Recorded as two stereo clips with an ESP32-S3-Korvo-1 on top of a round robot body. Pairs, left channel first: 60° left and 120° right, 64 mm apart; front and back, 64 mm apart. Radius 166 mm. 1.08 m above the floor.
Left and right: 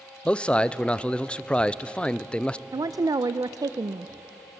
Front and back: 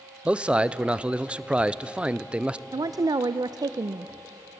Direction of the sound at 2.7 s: 155° right.